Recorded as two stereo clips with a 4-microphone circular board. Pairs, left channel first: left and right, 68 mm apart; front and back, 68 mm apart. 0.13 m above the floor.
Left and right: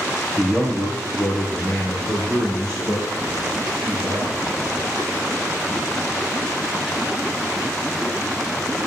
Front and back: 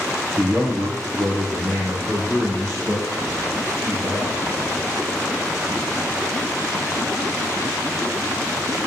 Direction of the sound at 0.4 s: 145° left.